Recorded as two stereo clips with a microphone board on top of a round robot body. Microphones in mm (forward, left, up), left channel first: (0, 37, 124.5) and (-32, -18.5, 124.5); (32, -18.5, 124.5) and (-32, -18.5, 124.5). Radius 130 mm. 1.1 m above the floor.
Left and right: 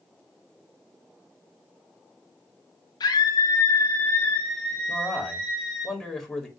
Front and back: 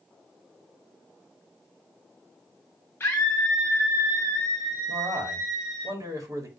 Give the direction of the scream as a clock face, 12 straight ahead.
10 o'clock.